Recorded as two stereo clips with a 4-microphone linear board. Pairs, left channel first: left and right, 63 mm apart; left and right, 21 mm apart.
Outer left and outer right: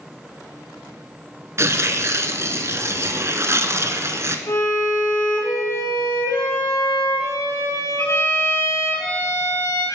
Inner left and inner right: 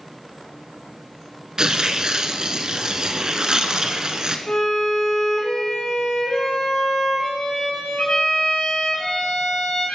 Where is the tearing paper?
50° right (ahead or behind), 0.6 m.